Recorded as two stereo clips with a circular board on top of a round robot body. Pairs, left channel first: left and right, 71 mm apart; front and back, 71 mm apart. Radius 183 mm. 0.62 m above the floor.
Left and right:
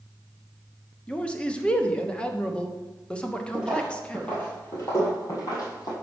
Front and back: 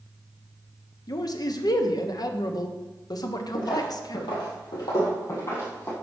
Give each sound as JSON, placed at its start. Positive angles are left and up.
{"t": 1.1, "sound": "a man speaking", "azimuth_deg": 15, "distance_m": 1.1}
{"t": 3.5, "sound": "footsteps", "azimuth_deg": -10, "distance_m": 1.4}